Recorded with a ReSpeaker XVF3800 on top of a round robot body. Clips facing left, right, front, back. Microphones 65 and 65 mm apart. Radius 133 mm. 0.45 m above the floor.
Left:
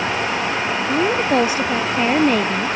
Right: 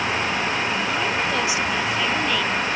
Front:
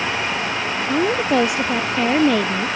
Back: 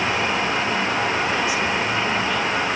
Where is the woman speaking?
40° left.